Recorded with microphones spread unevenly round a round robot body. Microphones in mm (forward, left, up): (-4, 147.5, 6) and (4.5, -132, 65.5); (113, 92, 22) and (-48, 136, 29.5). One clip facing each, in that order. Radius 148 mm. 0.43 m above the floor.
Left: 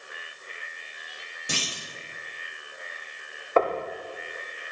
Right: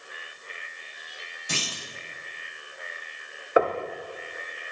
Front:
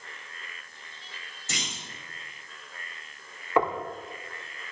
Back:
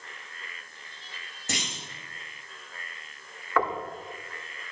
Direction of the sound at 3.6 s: 5° left.